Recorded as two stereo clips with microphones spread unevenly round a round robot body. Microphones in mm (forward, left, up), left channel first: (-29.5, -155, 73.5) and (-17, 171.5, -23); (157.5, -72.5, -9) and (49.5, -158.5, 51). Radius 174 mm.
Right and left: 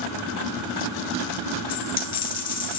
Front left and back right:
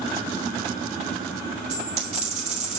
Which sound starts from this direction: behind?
A dropped coin, at 1.7 s.